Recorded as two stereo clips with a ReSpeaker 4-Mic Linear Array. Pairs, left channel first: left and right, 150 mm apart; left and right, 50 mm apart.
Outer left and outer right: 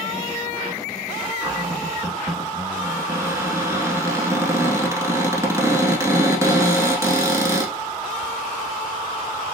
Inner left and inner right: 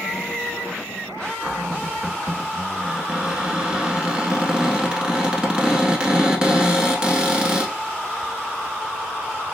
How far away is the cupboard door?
About 0.8 m.